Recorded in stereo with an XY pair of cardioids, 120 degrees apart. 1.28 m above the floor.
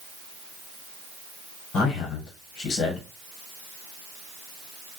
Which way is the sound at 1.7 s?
65° left.